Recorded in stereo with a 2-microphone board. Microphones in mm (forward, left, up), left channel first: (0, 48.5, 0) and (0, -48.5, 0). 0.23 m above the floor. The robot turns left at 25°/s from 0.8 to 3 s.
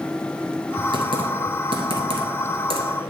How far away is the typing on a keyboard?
About 1.1 m.